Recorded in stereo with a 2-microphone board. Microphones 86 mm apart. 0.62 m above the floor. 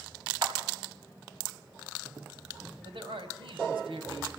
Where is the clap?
50° right (ahead or behind), 3 m.